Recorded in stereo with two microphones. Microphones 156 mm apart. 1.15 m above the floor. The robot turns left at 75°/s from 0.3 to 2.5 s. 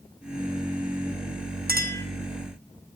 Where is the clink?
80° right, 1.2 m; by 2.0 s 65° right (ahead or behind), 1.2 m.